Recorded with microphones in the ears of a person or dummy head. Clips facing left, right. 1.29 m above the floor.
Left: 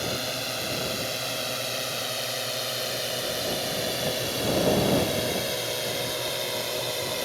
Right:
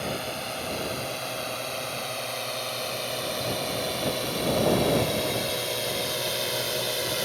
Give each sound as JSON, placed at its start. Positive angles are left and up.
{"t": 0.0, "sound": "a drone", "side_deg": 15}